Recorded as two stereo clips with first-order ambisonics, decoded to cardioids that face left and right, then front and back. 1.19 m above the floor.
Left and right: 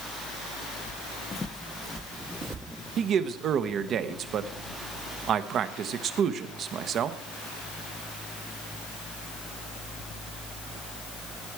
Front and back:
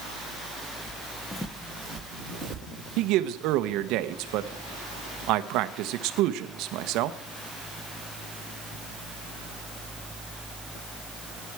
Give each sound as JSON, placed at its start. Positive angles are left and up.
{"t": 0.9, "sound": "footsteps", "azimuth_deg": 55, "distance_m": 1.6}
{"t": 3.0, "sound": "a man speaking", "azimuth_deg": -145, "distance_m": 0.9}